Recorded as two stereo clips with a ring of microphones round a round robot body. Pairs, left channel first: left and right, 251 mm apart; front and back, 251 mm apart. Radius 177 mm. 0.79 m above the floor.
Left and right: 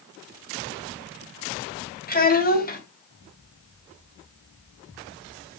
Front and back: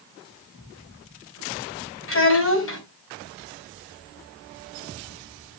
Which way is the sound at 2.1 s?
35° left.